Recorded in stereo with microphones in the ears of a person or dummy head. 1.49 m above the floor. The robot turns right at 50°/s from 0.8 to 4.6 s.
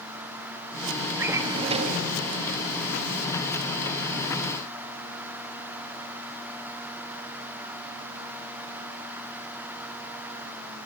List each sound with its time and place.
1.2 s a drawer: 170° right, 1.4 m; by 2.1 s 125° right, 1.4 m